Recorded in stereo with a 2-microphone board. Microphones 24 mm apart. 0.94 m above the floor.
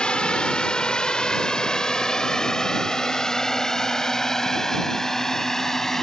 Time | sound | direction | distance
0.0 | a drone | 50° left (ahead or behind) | ?